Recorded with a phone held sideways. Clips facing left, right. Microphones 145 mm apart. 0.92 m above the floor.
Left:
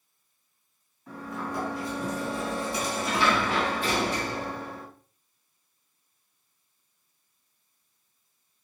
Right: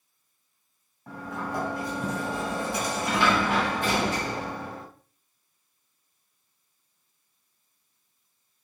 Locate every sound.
1.1 s a sliding door: 50° right (ahead or behind), 2 m